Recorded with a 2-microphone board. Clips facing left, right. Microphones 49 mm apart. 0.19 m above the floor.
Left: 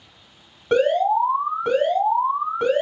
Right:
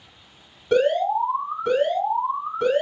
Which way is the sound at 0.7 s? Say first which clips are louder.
Left 2 dB; 25° left (ahead or behind).